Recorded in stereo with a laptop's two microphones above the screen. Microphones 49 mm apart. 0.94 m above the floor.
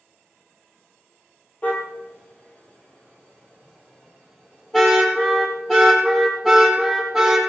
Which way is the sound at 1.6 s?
30° left (ahead or behind).